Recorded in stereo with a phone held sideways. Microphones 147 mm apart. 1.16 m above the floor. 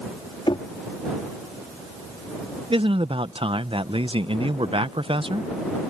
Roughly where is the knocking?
Left.